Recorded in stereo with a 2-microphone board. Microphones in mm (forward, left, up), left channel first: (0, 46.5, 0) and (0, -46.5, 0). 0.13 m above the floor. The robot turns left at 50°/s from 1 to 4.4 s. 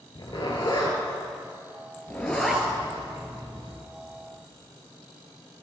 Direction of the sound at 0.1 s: 55° left (ahead or behind).